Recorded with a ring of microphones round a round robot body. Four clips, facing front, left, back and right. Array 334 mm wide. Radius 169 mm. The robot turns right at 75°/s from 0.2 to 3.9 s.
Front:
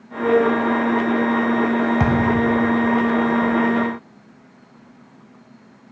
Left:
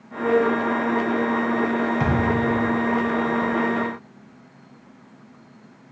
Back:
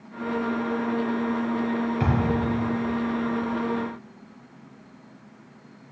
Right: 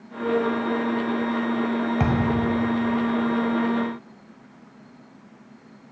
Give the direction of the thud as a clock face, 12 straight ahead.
1 o'clock.